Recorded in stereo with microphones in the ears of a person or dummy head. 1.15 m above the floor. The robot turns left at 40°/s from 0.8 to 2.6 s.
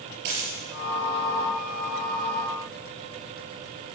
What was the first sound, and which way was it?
A dropped coin, 55° right (ahead or behind).